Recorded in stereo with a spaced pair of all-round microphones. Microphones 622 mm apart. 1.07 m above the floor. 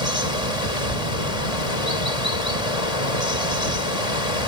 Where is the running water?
80° left.